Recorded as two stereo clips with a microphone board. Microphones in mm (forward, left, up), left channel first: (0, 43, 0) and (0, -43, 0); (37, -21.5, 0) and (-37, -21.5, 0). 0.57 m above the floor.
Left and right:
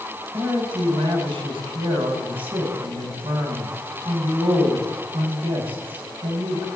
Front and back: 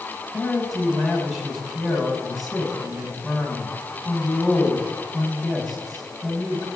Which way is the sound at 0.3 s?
95° right.